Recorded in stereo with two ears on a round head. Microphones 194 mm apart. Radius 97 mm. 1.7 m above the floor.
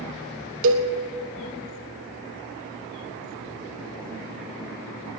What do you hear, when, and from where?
0.6 s a cowbell: 65° right (ahead or behind), 1.5 m